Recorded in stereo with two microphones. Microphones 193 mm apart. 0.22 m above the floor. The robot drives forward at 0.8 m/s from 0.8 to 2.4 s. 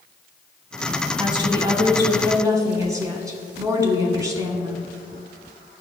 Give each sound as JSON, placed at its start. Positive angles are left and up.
{"t": 1.2, "sound": "a woman speaking", "side_deg": -25, "distance_m": 1.3}